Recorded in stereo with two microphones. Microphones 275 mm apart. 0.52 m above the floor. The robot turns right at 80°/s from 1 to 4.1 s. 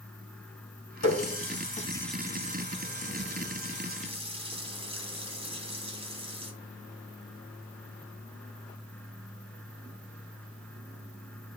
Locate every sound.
1.0 s a running tap: 80° left, 3 m; by 6.5 s 20° right (ahead or behind), 3 m